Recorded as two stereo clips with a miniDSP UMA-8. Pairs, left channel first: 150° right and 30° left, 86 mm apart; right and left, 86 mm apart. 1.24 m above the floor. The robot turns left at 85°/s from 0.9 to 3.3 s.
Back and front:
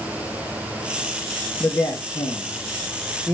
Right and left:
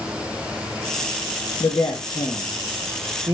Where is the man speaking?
90° right, 1.4 m; by 3.3 s 125° left, 1.4 m.